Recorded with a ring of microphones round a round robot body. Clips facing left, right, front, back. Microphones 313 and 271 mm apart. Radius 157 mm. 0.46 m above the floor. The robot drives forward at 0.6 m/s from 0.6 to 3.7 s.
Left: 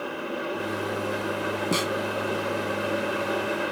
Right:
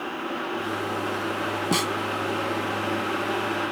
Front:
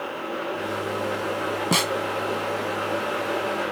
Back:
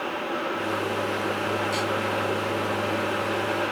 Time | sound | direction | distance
1.7 | a snare drum | 10° right | ?